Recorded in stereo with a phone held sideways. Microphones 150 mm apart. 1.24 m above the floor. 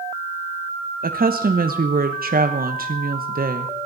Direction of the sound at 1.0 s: 80° right.